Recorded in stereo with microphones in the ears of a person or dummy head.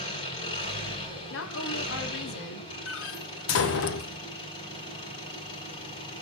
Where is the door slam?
55° left (ahead or behind), 1.0 m.